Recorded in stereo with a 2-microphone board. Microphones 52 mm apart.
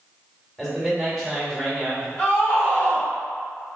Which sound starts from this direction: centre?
A man speaking, at 0.6 s.